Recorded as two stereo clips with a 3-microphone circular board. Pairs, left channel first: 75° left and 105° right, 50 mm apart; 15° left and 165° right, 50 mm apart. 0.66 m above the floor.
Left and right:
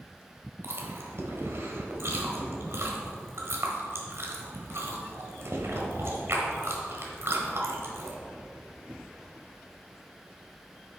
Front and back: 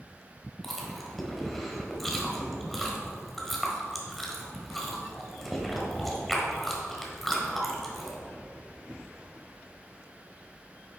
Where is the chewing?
70° right, 1.3 m.